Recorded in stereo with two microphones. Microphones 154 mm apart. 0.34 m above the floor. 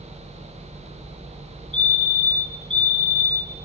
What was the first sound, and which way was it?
A fire alarm, 30° right (ahead or behind).